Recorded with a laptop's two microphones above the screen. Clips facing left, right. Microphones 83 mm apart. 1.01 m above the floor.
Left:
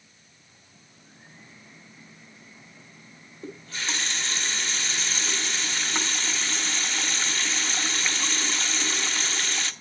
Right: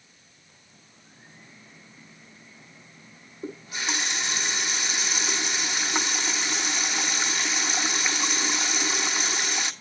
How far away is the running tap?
About 0.6 m.